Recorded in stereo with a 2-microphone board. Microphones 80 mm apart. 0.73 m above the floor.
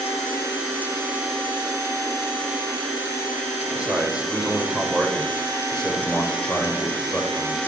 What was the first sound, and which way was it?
A man speaking, 15° right (ahead or behind).